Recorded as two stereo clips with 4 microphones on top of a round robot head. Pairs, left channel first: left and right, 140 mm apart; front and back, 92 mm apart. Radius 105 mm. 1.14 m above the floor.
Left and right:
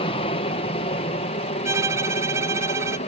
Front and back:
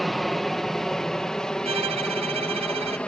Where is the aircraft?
85° left; by 3.1 s 70° left.